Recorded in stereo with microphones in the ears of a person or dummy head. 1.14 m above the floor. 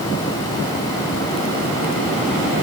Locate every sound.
Only background noise.